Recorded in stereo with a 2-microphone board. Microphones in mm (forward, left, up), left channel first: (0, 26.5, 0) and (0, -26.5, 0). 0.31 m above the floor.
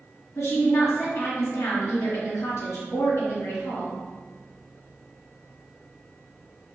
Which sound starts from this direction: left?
A woman speaking, at 0.3 s.